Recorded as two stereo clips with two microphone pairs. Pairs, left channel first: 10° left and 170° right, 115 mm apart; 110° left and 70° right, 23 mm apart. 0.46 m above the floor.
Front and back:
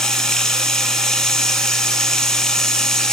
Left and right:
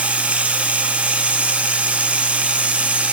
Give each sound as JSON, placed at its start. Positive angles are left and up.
{"t": 0.0, "sound": "running water", "azimuth_deg": -75, "distance_m": 0.9}